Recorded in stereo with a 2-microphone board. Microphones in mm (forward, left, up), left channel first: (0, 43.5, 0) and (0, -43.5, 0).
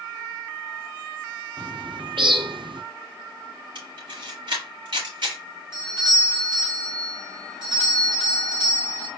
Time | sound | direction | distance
1.6 | a bird | 65° right (ahead or behind) | 0.5 m
3.8 | a camera shutter | 60° right (ahead or behind) | 4 m
5.7 | a doorbell | 60° right (ahead or behind) | 2.5 m